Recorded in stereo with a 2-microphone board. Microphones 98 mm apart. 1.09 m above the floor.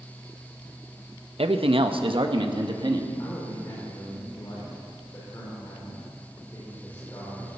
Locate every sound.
1.4 s a man speaking: 75° right (ahead or behind), 0.8 m; by 3.1 s 55° right (ahead or behind), 1.6 m
3.2 s a man speaking: 35° left (ahead or behind), 4.5 m